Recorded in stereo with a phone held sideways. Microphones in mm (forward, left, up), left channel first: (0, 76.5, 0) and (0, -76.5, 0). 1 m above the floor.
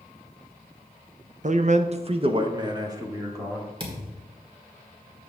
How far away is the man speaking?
About 0.6 m.